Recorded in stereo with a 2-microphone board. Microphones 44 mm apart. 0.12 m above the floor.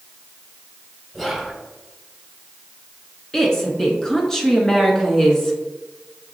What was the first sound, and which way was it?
Whispering, 5° left (ahead or behind).